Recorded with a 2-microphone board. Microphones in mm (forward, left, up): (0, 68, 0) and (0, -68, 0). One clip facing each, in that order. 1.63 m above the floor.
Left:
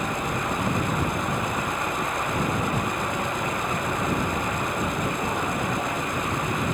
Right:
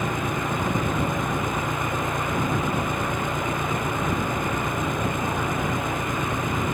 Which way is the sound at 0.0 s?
60° right (ahead or behind).